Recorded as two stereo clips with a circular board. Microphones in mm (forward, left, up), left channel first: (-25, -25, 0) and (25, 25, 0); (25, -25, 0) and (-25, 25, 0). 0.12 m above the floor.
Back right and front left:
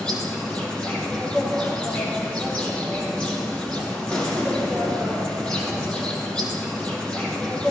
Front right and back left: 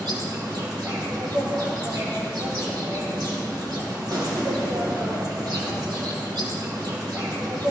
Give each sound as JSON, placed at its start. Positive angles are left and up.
{"t": 0.0, "sound": "an insect", "azimuth_deg": 150, "distance_m": 5.0}